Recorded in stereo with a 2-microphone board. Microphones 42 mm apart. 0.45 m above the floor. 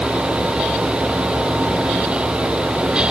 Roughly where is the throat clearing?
I don't hear throat clearing.